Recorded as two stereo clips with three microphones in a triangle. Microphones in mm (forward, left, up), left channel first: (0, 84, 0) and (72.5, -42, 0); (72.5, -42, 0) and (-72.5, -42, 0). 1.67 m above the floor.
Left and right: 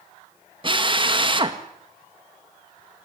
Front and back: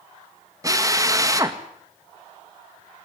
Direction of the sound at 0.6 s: 115° right.